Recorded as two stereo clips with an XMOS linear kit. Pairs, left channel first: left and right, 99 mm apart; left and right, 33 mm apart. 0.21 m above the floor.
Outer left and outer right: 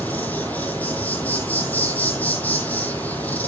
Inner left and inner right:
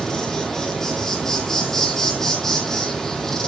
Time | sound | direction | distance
0.0 | an insect | 15° left (ahead or behind) | 1.9 m